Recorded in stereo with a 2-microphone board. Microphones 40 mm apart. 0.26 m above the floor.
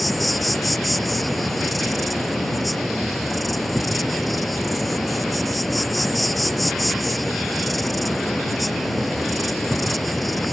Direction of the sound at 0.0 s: Centre (ahead or behind).